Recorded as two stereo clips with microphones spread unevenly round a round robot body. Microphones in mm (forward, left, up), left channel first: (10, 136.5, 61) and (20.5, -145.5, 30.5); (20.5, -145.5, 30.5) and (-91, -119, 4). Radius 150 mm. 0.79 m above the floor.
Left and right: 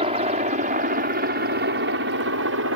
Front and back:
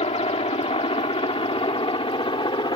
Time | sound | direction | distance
0.0 | a helicopter | 25° right | ?